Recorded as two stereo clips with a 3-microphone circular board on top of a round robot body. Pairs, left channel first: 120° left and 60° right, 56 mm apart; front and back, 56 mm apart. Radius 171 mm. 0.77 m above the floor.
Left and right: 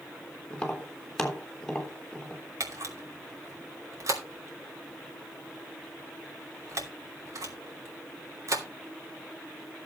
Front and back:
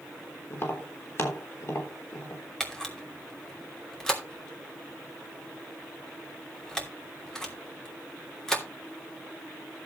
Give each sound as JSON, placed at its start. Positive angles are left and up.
{"t": 0.5, "sound": "tapping", "azimuth_deg": 40, "distance_m": 3.5}
{"t": 2.6, "sound": "a camera shutter", "azimuth_deg": -80, "distance_m": 3.0}